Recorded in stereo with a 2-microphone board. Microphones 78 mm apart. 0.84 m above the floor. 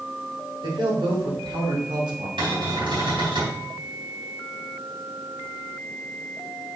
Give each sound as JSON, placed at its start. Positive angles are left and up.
{"t": 0.6, "sound": "a man speaking", "side_deg": -70, "distance_m": 3.0}
{"t": 2.4, "sound": "a cupboard door", "side_deg": -80, "distance_m": 4.0}